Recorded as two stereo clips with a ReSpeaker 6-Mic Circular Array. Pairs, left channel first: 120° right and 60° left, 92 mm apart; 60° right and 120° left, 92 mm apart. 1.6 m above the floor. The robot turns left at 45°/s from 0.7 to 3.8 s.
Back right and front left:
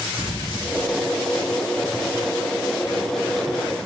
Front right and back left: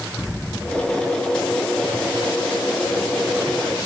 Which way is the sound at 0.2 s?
150° right.